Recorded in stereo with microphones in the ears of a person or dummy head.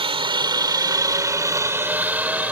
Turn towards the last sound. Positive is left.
turn(degrees=-5)  # may be behind; listen again after turning